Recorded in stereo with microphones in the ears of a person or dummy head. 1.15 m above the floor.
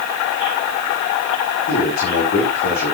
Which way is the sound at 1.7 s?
55° left (ahead or behind).